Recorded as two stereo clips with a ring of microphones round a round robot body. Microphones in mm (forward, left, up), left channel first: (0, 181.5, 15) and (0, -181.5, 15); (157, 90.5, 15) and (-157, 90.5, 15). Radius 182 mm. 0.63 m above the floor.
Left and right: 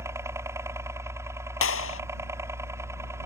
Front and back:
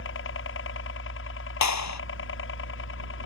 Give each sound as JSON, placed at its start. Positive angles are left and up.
{"t": 0.0, "sound": "a helicopter", "azimuth_deg": -10}
{"t": 1.6, "sound": "a clap", "azimuth_deg": 35}